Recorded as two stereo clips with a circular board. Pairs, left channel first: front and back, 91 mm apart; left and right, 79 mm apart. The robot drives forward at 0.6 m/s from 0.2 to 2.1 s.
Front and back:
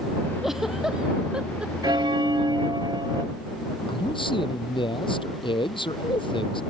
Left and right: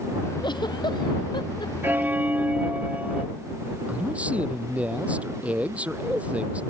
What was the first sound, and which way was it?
A giggle, 95° left.